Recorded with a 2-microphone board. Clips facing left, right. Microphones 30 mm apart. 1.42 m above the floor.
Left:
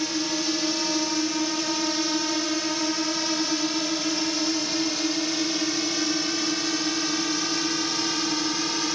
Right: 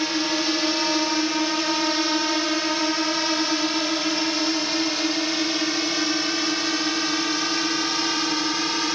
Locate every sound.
0.0 s a drone: 25° right (ahead or behind); by 9.0 s 15° right (ahead or behind)